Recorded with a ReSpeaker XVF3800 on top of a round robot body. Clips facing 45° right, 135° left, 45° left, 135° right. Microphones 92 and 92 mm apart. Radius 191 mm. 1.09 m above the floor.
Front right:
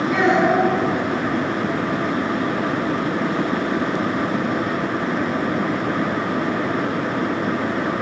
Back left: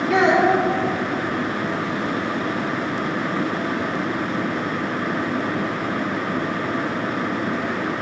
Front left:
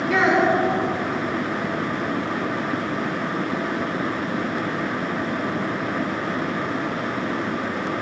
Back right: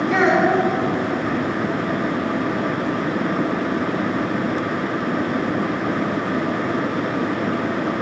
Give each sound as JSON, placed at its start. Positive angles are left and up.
{"t": 0.1, "sound": "a child speaking", "azimuth_deg": 130, "distance_m": 3.0}